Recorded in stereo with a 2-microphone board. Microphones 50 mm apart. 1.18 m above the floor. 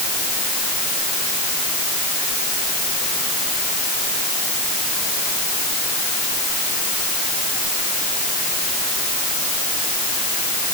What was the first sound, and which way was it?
Only background noise.